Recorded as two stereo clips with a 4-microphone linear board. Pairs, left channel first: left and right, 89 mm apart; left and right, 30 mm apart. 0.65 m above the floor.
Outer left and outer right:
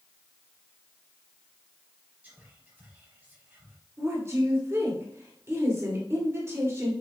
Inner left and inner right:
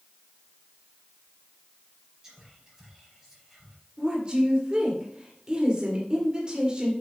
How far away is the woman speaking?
About 2 m.